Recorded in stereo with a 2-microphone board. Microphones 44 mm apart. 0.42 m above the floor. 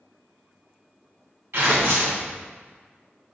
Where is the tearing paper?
70° right (ahead or behind), 3 m.